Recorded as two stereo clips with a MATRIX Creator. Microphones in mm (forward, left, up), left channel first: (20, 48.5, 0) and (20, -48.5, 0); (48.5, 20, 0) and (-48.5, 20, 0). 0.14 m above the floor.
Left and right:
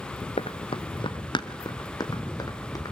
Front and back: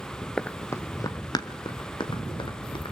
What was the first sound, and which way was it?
Running footsteps, 85° left.